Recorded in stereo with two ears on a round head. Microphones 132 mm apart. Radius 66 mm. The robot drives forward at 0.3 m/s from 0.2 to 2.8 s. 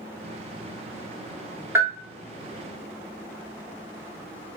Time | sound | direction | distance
1.8 | a bell | 15° right (ahead or behind) | 0.6 m